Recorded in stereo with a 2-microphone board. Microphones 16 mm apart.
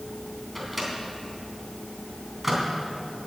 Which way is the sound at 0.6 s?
10° right (ahead or behind).